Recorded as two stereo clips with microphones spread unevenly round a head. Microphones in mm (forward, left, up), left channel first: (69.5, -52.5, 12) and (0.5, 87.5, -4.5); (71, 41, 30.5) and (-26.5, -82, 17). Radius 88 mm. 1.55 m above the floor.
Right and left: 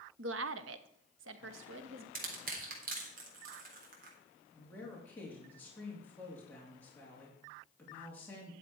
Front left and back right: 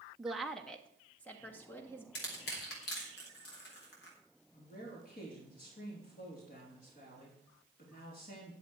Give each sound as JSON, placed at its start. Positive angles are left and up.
{"t": 0.2, "sound": "a woman speaking", "azimuth_deg": 145, "distance_m": 0.8}
{"t": 2.1, "sound": "crushing", "azimuth_deg": 85, "distance_m": 3.5}
{"t": 4.5, "sound": "a man speaking", "azimuth_deg": 15, "distance_m": 3.5}